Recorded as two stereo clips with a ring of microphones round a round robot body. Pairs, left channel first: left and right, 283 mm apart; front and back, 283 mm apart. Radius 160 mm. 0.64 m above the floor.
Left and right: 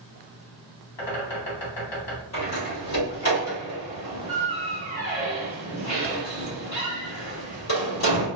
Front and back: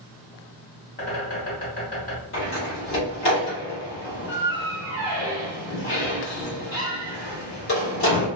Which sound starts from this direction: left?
A bird, at 1.0 s.